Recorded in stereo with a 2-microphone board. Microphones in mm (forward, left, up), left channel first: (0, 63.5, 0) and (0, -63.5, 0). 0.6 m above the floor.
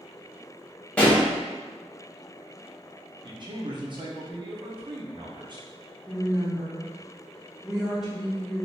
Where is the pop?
10° left (ahead or behind), 1.1 m.